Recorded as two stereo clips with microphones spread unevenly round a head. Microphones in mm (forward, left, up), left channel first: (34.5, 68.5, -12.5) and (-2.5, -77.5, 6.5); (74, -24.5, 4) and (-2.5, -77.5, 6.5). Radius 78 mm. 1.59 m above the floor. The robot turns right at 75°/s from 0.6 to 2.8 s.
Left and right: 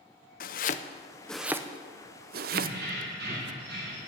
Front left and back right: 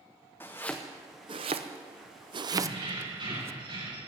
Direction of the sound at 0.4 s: 110° left.